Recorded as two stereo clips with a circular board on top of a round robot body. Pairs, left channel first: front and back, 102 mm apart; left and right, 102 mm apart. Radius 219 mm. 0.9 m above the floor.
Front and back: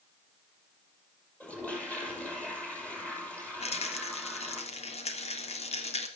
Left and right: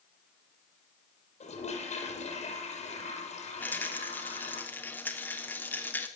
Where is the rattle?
15° left, 3 m.